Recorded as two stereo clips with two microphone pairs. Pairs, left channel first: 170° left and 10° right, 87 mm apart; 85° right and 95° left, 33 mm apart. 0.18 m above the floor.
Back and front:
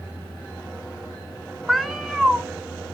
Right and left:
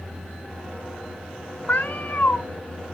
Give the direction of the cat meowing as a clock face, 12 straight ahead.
3 o'clock.